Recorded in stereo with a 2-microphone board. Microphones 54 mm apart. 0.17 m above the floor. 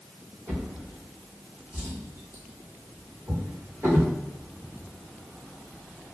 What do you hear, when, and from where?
0.5 s a drawer: 65° right (ahead or behind), 1.6 m